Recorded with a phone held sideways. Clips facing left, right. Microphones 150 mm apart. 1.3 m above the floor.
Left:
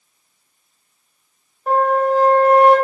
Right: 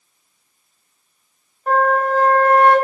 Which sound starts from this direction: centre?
A flute, at 1.7 s.